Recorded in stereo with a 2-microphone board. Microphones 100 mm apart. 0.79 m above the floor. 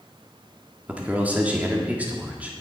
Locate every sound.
0.9 s a man speaking: 15° right (ahead or behind), 1.6 m